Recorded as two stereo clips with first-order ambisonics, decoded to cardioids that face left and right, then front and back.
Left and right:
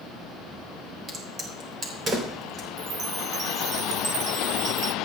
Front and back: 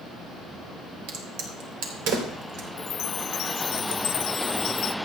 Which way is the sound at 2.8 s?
35° right.